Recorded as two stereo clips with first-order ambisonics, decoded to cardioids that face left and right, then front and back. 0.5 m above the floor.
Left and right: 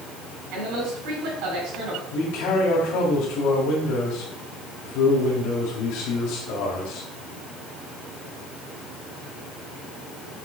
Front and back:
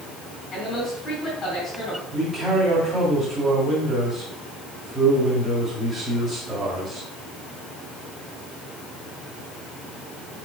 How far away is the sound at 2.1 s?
About 2.0 m.